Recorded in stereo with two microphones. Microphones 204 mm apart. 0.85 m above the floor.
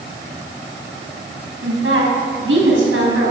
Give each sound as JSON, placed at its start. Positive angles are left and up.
{"t": 1.6, "sound": "a woman speaking", "side_deg": -80, "distance_m": 5.0}